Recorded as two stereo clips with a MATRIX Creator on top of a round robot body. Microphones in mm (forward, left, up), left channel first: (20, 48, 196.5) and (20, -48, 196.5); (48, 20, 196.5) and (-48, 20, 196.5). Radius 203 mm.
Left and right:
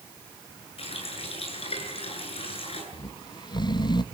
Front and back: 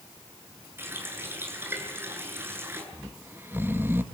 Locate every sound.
0.8 s a running tap: 110° left, 8.5 m
2.9 s snoring: 115° left, 1.6 m